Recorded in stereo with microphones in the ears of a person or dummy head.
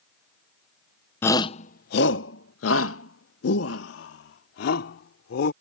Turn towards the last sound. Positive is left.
turn(degrees=65)  # may be behind; listen again after turning